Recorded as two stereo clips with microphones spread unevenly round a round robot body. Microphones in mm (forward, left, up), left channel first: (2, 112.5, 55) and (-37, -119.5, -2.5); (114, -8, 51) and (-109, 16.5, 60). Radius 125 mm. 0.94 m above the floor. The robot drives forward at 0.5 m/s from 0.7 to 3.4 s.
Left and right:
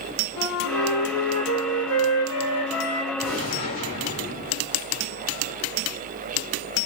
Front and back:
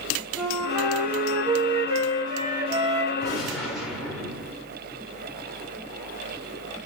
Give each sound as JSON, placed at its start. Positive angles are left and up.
{"t": 0.4, "sound": "a flute", "azimuth_deg": 80, "distance_m": 1.3}
{"t": 3.2, "sound": "a gunshot", "azimuth_deg": 80, "distance_m": 1.5}